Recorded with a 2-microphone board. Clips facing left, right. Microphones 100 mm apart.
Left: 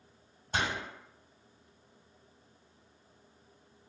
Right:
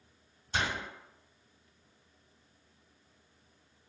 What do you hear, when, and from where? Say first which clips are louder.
0.5 s a door slam: left 1 dB; 50° left (ahead or behind), 1.3 m